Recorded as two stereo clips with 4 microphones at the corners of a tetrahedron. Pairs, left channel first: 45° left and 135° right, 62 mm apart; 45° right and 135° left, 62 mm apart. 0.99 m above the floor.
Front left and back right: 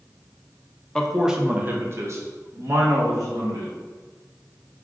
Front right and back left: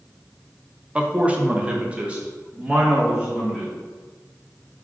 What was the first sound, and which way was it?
A man speaking, 105° left.